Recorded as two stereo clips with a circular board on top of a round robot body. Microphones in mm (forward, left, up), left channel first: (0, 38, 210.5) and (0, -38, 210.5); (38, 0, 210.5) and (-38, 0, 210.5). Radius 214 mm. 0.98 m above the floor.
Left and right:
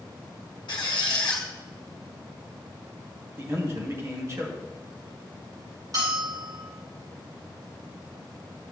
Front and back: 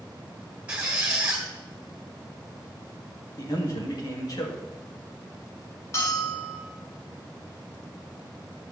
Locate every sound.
0.7 s a squeak: 110° left, 1.3 m
3.4 s a man speaking: 35° right, 2 m
5.9 s a bell: 55° right, 5 m